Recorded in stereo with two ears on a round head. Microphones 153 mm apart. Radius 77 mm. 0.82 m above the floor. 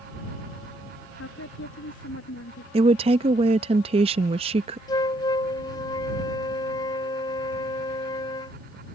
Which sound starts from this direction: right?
A woman speaking, at 2.7 s.